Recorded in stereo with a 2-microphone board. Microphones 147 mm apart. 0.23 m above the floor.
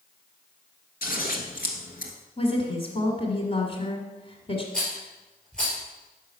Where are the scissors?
70° left (ahead or behind), 1.3 m.